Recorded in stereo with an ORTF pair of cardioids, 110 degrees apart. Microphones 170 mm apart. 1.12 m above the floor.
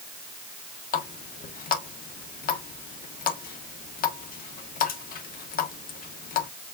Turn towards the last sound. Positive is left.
turn(degrees=55)